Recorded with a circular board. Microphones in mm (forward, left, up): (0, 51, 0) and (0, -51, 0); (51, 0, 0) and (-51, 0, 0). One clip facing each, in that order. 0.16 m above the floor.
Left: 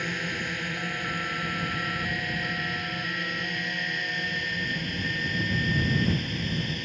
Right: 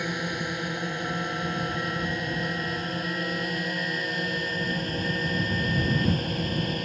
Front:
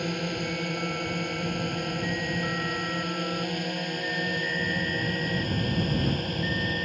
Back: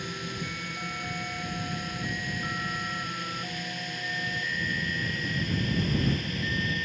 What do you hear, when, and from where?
0.0 s a drone: 20° right; by 6.8 s 45° right